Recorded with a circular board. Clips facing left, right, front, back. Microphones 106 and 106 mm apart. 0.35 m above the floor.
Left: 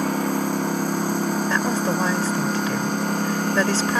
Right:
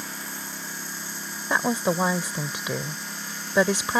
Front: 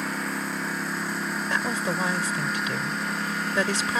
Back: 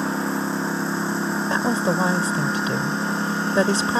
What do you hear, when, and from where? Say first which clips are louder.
0.0 s a lawn mower: left 16 dB, back 6 dB; 120° left
1.5 s a woman speaking: left 2 dB, back 6 dB; 155° right